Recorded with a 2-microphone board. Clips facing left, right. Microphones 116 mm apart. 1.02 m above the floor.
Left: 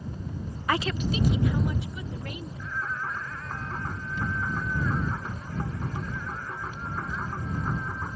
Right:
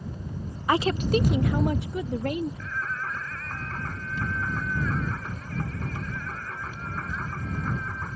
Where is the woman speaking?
15° right (ahead or behind); by 2.5 s 65° right (ahead or behind).